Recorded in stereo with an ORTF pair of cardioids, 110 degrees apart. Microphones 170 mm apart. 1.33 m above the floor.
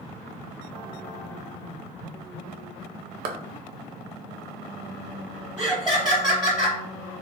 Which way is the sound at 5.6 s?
10° right.